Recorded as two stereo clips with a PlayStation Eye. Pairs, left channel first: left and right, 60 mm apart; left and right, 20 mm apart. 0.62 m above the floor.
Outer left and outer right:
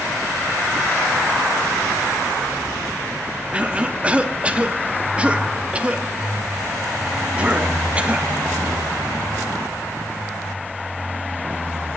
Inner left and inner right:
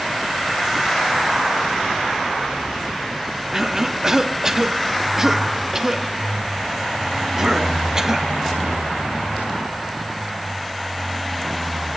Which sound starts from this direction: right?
A cough, at 3.5 s.